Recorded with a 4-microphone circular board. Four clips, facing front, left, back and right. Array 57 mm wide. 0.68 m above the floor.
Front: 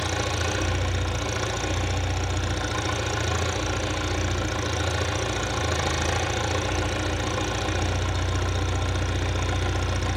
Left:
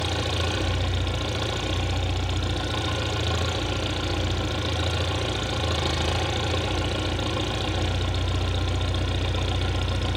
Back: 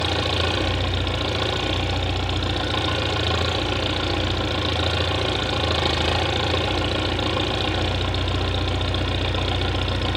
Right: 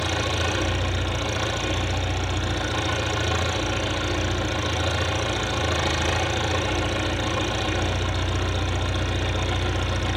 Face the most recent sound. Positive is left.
turn(degrees=175)